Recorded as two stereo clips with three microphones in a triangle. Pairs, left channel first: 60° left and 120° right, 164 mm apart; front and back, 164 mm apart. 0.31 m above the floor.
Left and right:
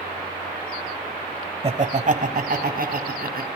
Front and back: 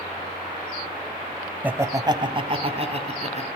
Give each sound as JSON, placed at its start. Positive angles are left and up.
{"t": 1.6, "sound": "laughter", "azimuth_deg": -105, "distance_m": 1.1}